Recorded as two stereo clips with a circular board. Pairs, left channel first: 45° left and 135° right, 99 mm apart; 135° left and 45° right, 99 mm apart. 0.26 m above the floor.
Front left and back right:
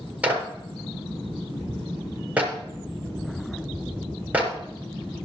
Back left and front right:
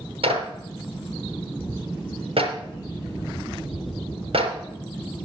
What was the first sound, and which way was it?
A clap, 60° right.